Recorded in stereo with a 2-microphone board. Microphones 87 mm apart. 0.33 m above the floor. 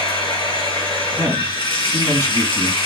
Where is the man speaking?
35° left (ahead or behind), 2.5 m.